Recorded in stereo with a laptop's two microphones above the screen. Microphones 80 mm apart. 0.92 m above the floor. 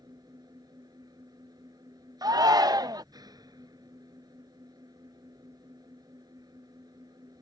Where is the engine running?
55° right (ahead or behind).